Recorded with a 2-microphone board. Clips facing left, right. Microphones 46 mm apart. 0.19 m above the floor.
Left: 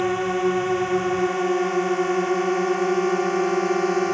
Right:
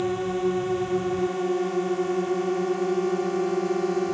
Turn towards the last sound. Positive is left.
turn(degrees=75)  # may be behind; listen again after turning